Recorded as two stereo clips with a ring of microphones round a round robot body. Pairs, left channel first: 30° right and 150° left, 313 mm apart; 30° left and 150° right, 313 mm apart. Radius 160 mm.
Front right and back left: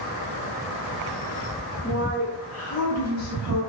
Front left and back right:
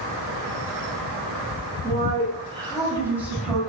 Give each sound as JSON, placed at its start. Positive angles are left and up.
{"t": 1.8, "sound": "a woman speaking", "azimuth_deg": -85, "distance_m": 2.5}